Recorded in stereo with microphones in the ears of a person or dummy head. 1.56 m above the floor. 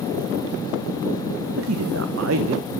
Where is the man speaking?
85° right, 1.3 m.